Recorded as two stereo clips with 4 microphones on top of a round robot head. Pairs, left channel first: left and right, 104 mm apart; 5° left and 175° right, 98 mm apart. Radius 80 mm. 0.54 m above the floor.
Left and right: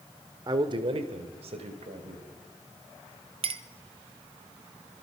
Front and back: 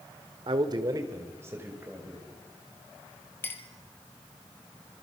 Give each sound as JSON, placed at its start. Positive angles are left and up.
{"t": 0.5, "sound": "a man speaking", "azimuth_deg": -140, "distance_m": 1.5}
{"t": 3.4, "sound": "a clink", "azimuth_deg": -65, "distance_m": 1.2}